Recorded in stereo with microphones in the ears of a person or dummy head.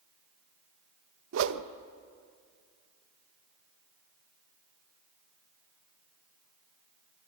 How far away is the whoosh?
About 0.8 m.